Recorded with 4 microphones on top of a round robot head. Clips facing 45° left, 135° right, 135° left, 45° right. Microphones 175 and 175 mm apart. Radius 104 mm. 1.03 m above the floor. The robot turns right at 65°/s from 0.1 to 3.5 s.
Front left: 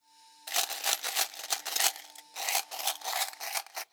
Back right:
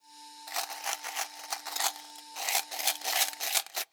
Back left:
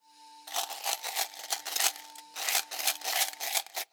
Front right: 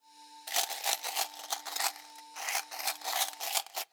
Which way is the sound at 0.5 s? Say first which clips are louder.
Front left 1 dB, even; 10° left.